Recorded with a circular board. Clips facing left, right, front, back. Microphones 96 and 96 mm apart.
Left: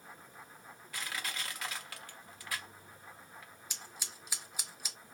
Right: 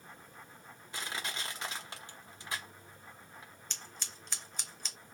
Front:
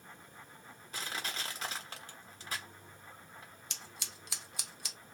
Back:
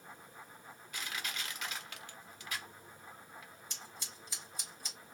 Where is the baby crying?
I don't hear a baby crying.